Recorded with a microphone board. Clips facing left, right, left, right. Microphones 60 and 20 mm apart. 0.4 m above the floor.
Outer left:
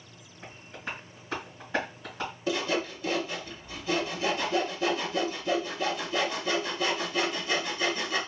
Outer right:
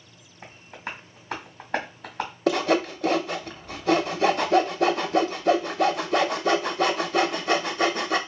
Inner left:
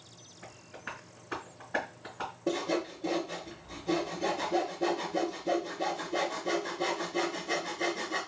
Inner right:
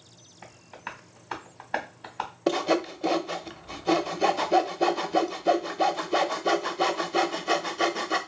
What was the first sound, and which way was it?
Tapping, 70° right (ahead or behind).